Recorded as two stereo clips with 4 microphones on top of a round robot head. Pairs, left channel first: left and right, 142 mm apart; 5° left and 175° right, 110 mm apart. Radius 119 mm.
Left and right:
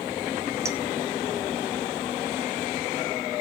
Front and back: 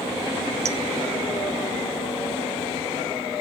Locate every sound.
0.7 s a clink: 160° right, 0.7 m